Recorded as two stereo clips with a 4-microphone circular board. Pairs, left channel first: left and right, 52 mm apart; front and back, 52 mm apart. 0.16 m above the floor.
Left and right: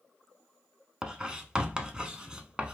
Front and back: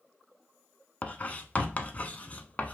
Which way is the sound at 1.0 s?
30° right.